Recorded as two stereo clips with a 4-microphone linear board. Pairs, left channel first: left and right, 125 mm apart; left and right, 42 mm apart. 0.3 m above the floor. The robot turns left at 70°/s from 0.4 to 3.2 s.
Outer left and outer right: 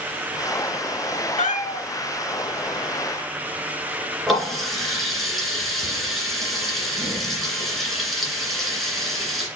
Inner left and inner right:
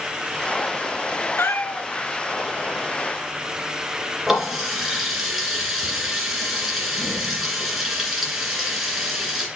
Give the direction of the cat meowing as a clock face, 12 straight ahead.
9 o'clock.